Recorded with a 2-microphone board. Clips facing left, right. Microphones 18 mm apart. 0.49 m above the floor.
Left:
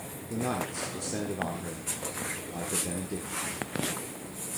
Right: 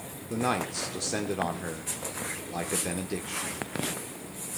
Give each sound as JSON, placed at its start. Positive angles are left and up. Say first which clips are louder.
{"t": 0.3, "sound": "a man speaking", "louder": "right 3 dB", "side_deg": -40, "distance_m": 0.8}